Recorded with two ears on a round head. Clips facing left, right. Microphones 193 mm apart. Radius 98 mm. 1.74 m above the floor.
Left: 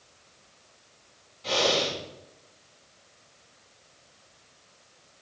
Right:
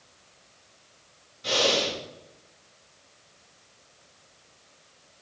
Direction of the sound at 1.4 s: 15° right (ahead or behind).